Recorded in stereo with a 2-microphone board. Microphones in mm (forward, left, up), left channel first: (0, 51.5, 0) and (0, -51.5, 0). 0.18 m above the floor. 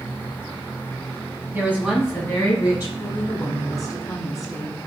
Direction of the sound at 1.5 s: 20° right (ahead or behind).